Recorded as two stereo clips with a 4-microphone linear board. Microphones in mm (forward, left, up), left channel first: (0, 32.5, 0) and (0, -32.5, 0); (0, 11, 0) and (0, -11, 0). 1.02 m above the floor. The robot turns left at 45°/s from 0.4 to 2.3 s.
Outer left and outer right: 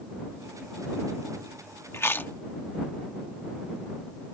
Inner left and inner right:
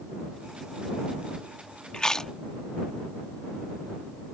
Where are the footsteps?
No footsteps in this recording.